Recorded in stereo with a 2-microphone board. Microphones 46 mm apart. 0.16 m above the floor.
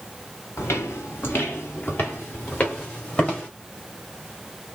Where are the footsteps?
65° left (ahead or behind), 1.9 m; by 3.5 s 35° left (ahead or behind), 4 m.